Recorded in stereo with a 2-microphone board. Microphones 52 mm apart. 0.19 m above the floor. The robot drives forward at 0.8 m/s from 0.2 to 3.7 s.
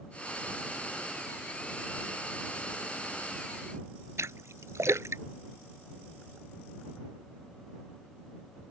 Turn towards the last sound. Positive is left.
turn(degrees=-80)